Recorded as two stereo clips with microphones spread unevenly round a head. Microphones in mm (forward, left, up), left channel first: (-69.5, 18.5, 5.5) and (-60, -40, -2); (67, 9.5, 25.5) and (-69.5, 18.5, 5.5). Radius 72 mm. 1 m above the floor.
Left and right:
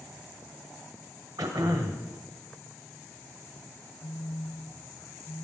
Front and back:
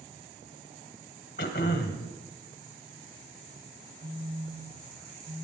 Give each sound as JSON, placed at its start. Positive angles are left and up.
{"t": 1.4, "sound": "throat clearing", "azimuth_deg": -35, "distance_m": 1.6}
{"t": 4.0, "sound": "a phone buzzing", "azimuth_deg": 145, "distance_m": 2.5}